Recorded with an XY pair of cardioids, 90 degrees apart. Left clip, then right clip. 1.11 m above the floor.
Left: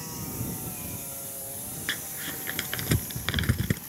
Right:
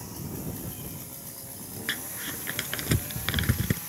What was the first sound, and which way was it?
Crumpling, straight ahead.